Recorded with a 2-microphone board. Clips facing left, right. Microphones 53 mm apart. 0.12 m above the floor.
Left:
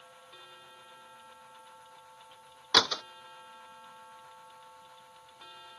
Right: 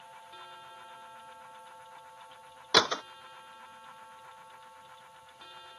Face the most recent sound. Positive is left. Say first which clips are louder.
# right 1 dB
turn(degrees=-25)  # may be behind; listen again after turning